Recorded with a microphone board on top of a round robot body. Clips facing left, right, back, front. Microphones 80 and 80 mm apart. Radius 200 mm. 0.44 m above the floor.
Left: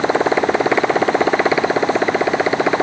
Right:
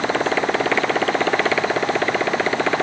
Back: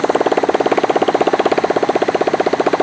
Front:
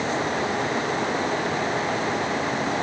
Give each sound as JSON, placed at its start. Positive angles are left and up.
{"t": 0.0, "sound": "a motorcycle", "azimuth_deg": 165}